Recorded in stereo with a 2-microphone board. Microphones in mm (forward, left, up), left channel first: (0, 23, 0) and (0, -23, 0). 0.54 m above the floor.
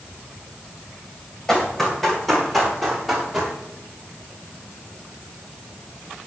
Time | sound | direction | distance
1.5 | running footsteps | 10° left (ahead or behind) | 8 m